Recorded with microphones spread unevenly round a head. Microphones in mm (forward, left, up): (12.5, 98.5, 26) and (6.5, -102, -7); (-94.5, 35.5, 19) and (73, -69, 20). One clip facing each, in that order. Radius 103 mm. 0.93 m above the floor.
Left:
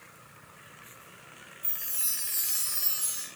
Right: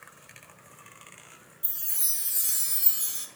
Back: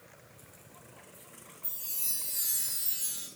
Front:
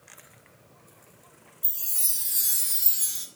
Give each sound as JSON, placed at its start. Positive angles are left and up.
{"t": 1.6, "sound": "a chime", "azimuth_deg": -30, "distance_m": 0.6}